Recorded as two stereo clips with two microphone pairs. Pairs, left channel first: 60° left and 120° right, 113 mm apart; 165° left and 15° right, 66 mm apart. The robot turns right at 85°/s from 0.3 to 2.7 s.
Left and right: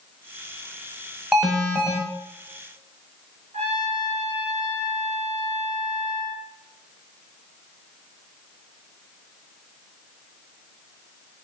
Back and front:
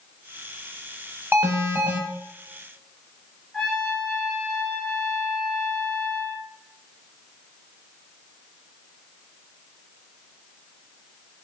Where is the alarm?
35° right, 0.7 m; by 2.0 s 20° left, 0.7 m.